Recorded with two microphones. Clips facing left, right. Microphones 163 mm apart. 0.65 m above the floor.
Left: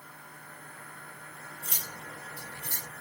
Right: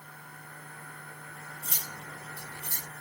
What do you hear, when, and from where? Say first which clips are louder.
1.6 s cutlery clinking: left 1 dB; 70° left (ahead or behind), 2 m